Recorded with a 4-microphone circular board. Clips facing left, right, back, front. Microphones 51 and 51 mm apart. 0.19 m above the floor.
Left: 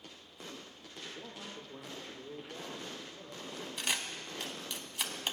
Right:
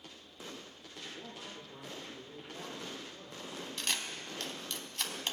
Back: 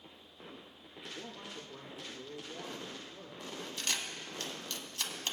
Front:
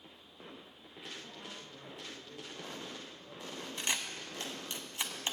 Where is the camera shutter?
25° left, 1.0 m.